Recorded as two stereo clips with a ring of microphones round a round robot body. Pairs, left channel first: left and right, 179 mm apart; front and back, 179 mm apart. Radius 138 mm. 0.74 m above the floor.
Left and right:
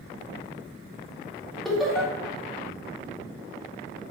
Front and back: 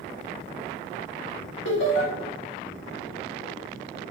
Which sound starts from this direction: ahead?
Laughter, at 1.6 s.